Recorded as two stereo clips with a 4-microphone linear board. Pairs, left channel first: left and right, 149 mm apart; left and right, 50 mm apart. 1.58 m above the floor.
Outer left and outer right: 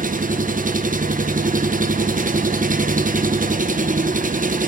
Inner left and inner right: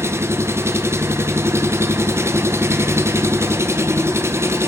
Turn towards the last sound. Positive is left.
turn(degrees=-65)  # may be behind; listen again after turning